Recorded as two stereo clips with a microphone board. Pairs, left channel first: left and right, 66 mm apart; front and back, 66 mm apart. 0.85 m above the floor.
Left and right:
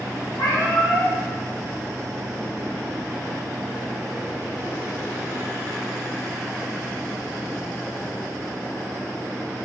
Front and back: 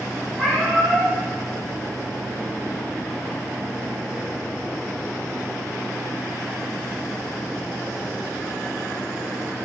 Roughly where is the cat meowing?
Left.